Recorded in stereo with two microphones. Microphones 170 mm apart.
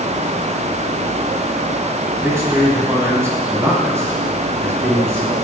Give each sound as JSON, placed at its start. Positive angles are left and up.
{"t": 2.1, "sound": "a man speaking", "side_deg": -15, "distance_m": 1.8}